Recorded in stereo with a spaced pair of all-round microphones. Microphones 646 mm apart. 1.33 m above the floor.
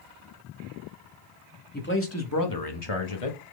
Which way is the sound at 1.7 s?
15° left (ahead or behind).